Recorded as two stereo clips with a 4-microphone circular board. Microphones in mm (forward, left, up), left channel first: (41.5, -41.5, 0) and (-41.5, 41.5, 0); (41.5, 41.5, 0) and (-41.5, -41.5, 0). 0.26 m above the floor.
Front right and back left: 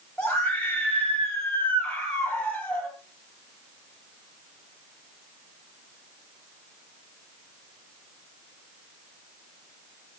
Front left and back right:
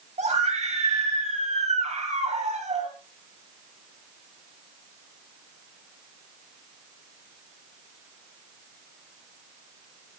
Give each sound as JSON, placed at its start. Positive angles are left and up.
{"t": 0.2, "sound": "a scream", "azimuth_deg": -125, "distance_m": 7.0}